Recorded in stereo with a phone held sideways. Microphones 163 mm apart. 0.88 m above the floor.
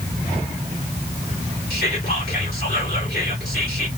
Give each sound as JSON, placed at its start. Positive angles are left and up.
{"t": 1.7, "sound": "whispering", "side_deg": 65, "distance_m": 2.5}